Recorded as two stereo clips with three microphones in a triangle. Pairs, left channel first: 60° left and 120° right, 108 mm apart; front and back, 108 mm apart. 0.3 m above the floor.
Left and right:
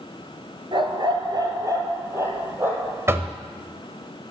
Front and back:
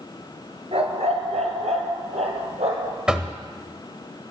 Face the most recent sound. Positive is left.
turn(degrees=-105)